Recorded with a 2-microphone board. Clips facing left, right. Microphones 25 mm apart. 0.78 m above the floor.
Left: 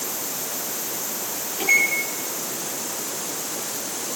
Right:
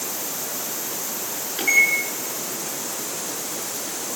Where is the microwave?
40° right (ahead or behind), 8 m.